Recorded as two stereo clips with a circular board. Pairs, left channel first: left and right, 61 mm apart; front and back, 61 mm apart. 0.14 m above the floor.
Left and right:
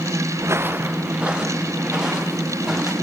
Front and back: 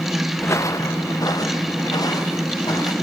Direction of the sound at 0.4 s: 55° right.